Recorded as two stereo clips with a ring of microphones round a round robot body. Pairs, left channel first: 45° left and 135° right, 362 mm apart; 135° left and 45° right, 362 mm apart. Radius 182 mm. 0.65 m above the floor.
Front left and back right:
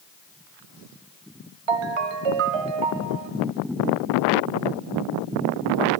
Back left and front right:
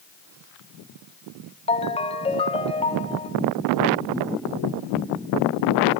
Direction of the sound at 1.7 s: 150° right.